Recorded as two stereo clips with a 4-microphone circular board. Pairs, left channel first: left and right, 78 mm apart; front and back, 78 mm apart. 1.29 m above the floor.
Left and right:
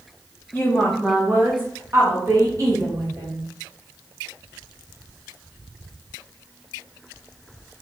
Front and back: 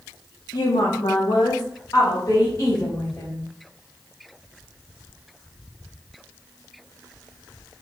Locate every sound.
0.5 s a woman speaking: 25° left, 0.9 m; by 3.5 s 50° right, 3 m